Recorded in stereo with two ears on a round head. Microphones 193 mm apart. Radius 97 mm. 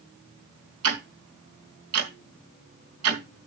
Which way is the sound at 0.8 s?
75° right (ahead or behind).